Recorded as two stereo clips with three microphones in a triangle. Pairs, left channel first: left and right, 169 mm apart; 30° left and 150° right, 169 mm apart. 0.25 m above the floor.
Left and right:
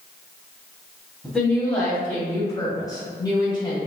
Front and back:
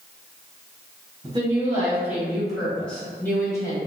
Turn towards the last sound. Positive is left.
turn(degrees=70)